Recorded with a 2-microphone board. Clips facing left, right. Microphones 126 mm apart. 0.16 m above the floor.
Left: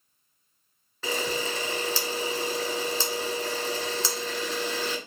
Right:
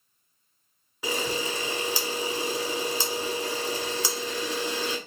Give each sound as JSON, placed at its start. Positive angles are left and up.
{"t": 1.0, "sound": "a camera shutter", "side_deg": -15, "distance_m": 1.2}